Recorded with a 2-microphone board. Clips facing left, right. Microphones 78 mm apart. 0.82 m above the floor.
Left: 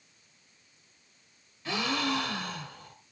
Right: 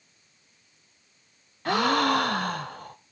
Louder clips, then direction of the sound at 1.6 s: Right 8 dB; 55° right (ahead or behind).